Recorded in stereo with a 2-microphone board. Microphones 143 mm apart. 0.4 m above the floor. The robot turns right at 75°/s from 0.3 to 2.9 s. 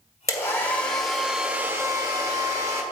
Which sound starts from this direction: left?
A hair dryer, at 0.3 s.